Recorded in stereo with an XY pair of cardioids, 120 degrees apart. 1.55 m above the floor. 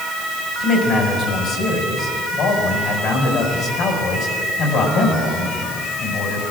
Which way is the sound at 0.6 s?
70° left.